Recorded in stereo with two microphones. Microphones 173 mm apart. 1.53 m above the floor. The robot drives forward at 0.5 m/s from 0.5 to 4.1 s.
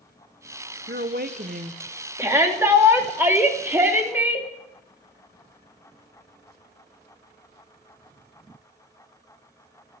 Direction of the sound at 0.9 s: 70° right (ahead or behind).